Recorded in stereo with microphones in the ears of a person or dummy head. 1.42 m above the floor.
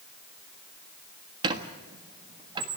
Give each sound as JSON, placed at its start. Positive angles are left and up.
{"t": 1.4, "sound": "a squeak", "side_deg": -25, "distance_m": 1.5}